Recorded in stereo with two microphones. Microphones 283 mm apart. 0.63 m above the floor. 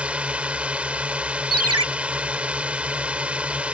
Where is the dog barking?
No dog barking in this recording.